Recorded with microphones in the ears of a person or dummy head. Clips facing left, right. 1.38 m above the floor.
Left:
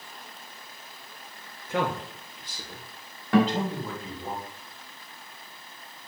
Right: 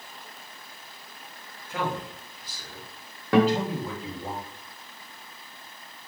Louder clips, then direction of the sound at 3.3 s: Right 2 dB; 50° right (ahead or behind).